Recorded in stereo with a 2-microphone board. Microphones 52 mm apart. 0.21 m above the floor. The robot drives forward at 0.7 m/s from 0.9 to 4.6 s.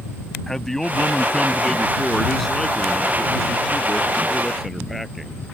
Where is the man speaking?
10° left (ahead or behind); by 5.4 s 5° left (ahead or behind).